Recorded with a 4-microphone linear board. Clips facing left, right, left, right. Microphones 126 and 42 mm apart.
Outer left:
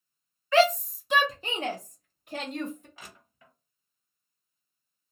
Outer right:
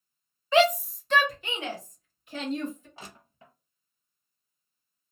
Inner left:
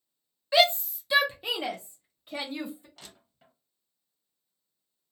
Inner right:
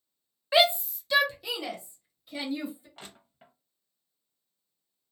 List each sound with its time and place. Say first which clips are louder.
0.5 s a shout: even, even; 20° right (ahead or behind), 0.8 m; by 2.9 s 60° left (ahead or behind), 1.5 m
3.0 s crushing: outer right 3 dB, inner right 4 dB; 30° right (ahead or behind), 0.6 m